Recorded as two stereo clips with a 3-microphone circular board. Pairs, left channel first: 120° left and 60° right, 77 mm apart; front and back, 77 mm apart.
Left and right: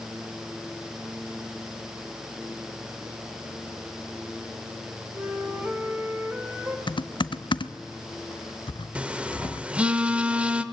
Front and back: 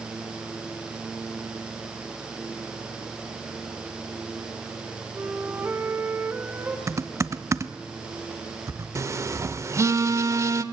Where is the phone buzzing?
135° right, 0.9 m.